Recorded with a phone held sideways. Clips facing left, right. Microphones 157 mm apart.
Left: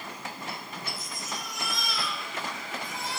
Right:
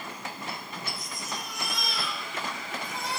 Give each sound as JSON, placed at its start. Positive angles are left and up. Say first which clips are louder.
{"t": 1.0, "sound": "a baby crying", "louder": "right 1 dB", "side_deg": -60, "distance_m": 7.5}